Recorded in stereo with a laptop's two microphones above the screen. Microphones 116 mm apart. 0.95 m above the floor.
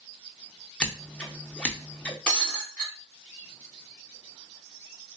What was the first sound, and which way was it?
Scissors, 10° left (ahead or behind).